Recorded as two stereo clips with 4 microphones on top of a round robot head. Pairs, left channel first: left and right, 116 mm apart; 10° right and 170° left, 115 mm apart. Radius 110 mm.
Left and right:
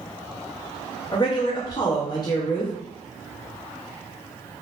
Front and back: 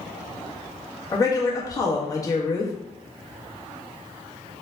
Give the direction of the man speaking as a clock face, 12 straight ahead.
11 o'clock.